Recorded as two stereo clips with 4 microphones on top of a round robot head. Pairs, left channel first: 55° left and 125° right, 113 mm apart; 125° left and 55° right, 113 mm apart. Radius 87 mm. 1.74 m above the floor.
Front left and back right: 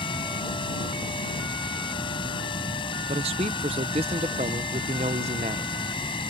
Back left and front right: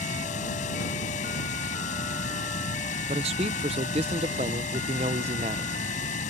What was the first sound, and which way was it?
Running water, 105° left.